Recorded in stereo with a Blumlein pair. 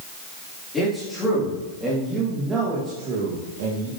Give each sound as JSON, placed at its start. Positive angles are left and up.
{"t": 0.7, "sound": "a man speaking", "azimuth_deg": 10, "distance_m": 4.0}